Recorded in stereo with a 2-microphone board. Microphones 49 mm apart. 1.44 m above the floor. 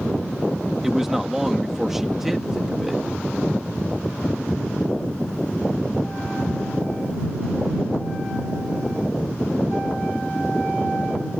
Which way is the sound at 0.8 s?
5° right (ahead or behind).